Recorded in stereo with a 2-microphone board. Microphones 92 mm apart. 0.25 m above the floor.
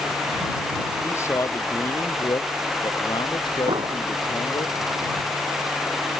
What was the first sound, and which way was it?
A man speaking, 30° left (ahead or behind).